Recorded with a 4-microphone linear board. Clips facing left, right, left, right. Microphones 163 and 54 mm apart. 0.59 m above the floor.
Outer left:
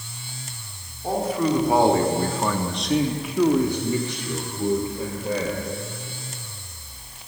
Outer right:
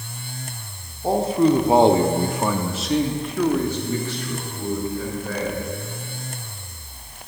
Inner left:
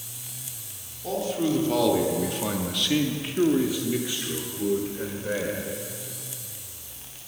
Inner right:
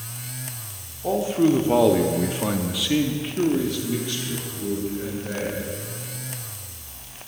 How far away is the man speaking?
About 1.2 m.